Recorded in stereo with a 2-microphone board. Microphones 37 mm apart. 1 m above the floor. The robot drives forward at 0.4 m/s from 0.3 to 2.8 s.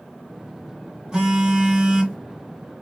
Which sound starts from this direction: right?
A phone buzzing, at 1.1 s.